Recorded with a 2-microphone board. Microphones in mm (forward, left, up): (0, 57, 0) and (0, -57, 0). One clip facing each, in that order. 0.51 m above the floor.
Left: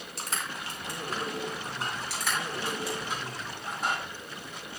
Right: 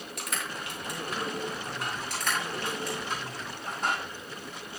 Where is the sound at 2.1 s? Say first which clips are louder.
Right 1 dB; 5° left (ahead or behind), 9 m.